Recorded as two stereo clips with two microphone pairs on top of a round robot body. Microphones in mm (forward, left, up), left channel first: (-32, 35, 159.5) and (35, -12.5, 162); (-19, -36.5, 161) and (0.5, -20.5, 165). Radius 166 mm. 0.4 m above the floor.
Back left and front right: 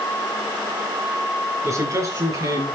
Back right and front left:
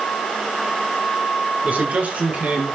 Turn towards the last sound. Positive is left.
turn(degrees=10)